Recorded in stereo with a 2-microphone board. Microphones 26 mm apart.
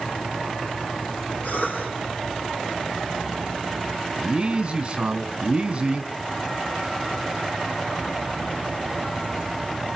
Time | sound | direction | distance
1.4 | a cough | 65° left (ahead or behind) | 9.5 m
4.2 | a man speaking | 40° right (ahead or behind) | 2 m